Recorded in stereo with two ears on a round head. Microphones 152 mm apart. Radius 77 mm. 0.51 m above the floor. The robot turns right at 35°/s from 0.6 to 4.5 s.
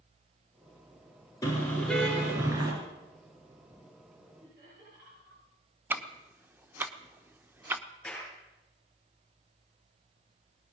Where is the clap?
5° left (ahead or behind), 7.5 m.